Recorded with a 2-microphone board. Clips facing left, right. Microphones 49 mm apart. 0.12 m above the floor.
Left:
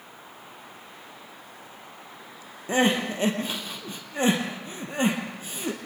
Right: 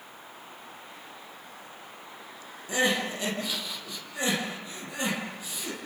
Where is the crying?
40° left (ahead or behind), 3.5 m.